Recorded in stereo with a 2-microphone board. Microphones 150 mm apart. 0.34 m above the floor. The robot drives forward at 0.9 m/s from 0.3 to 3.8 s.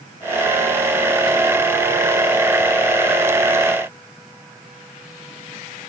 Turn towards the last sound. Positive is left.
No sound to turn to.